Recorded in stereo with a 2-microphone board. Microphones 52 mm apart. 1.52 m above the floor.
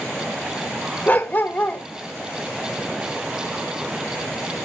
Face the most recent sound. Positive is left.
turn(degrees=35)  # may be behind; listen again after turning